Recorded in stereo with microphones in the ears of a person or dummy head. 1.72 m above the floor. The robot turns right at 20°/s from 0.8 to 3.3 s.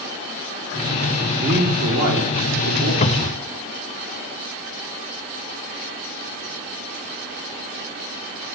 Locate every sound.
1.4 s a man speaking: 40° right (ahead or behind), 3.5 m; by 2.9 s 70° right (ahead or behind), 3.5 m
3.0 s a cupboard door: 35° left (ahead or behind), 0.8 m; by 3.5 s 30° left (ahead or behind), 0.8 m